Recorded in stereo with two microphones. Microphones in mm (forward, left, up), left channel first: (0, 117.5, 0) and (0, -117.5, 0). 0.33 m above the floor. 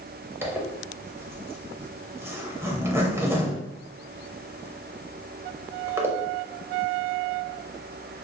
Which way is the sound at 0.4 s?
10° right (ahead or behind).